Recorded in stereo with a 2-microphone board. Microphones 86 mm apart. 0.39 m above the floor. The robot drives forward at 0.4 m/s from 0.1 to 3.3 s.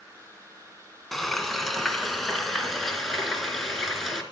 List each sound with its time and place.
1.1 s frying: centre (ahead or behind), 1.9 m